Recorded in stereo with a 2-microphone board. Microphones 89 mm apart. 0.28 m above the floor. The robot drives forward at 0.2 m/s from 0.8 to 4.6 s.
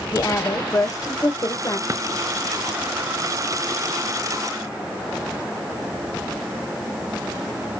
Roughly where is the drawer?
Right.